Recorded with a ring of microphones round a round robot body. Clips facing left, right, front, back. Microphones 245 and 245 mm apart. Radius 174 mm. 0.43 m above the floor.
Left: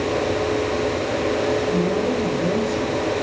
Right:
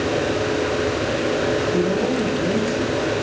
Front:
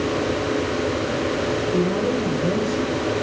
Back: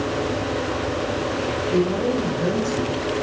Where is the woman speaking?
165° left, 6 m.